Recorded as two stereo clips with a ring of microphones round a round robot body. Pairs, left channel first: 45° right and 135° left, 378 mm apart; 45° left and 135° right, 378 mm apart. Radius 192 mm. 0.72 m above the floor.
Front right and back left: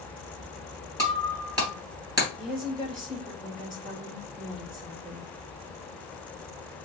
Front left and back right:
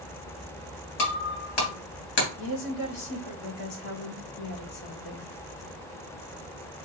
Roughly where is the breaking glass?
Ahead left.